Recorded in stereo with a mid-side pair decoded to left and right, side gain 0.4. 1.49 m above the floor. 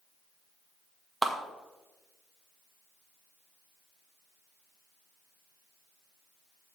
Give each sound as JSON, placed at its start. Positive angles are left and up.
{"t": 1.2, "sound": "a clap", "azimuth_deg": -10, "distance_m": 1.9}